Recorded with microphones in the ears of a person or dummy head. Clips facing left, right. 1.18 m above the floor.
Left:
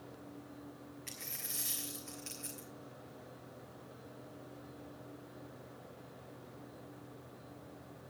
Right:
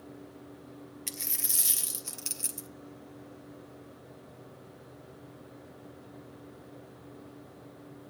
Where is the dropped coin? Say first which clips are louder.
Right 6 dB; 50° right (ahead or behind), 1.0 m.